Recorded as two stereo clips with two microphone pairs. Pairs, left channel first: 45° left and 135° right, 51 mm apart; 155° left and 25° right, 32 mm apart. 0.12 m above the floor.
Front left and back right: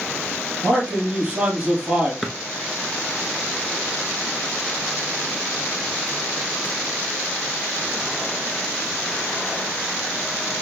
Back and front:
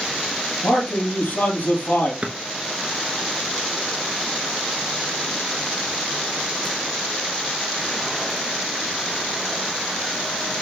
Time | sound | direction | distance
0.6 | a man speaking | 165° left | 3 m
2.2 | a drawer | 50° right | 0.8 m